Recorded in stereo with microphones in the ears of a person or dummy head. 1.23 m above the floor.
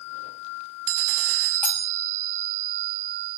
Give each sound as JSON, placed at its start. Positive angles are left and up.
{"t": 1.6, "sound": "cutlery clinking", "side_deg": 10, "distance_m": 0.7}